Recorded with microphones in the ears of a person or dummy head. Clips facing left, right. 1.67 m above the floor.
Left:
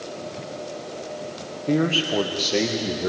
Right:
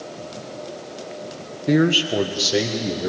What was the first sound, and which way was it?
A man speaking, 20° right (ahead or behind).